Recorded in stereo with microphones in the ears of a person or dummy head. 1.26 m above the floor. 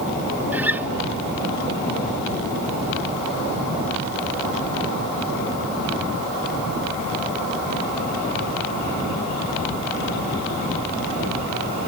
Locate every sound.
0.5 s a guitar: 10° right (ahead or behind), 0.6 m